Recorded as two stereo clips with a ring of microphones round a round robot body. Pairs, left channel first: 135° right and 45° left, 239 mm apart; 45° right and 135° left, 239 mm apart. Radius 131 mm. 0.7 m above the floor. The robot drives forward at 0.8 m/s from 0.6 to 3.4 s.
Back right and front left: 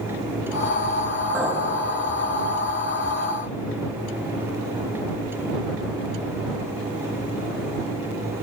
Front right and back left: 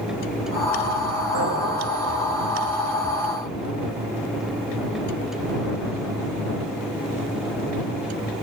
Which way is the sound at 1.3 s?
130° left.